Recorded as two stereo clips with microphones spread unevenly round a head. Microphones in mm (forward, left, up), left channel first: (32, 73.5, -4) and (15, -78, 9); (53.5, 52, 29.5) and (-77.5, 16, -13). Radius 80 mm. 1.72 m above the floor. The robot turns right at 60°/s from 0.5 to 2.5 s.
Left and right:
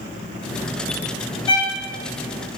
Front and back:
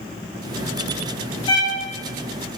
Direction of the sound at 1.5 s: 25° left.